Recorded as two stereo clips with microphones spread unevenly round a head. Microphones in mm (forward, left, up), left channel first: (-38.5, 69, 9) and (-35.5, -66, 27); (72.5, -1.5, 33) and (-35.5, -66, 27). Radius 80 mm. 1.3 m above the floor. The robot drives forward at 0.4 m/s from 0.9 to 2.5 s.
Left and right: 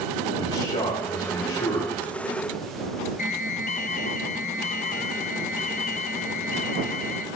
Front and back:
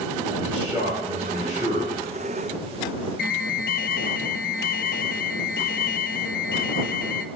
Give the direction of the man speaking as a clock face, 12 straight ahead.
7 o'clock.